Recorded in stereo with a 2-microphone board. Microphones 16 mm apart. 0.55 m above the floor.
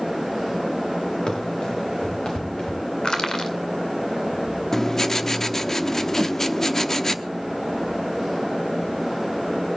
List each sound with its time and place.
1.3 s running footsteps: 45° left (ahead or behind), 5.5 m; by 2.8 s 55° left (ahead or behind), 4 m
3.0 s crushing: 45° left (ahead or behind), 2 m
4.7 s writing: 25° left (ahead or behind), 0.7 m
6.2 s a whoosh: 70° right (ahead or behind), 0.8 m